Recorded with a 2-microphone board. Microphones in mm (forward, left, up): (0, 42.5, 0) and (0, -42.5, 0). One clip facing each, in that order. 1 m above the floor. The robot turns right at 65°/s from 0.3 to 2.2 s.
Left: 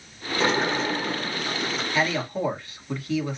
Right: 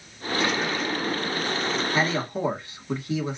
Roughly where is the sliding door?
Left.